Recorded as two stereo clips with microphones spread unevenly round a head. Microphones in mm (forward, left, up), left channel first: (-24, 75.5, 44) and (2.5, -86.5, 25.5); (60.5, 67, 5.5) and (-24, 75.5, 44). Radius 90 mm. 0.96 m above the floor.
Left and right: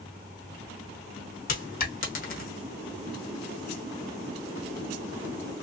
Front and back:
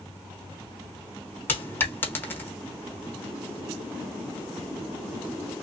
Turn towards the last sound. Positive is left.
turn(degrees=75)